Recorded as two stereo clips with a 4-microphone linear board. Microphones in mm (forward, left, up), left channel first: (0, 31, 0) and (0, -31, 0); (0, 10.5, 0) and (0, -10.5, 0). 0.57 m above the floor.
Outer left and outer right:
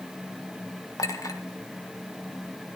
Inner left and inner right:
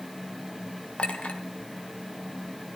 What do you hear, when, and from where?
1.0 s a clink: 65° left (ahead or behind), 1.3 m